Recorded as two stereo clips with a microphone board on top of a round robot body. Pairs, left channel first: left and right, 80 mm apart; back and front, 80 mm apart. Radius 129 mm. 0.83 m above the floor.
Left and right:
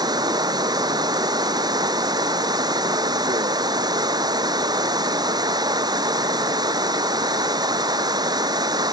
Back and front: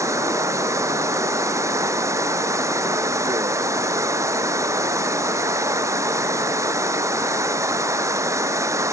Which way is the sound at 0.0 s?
50° right.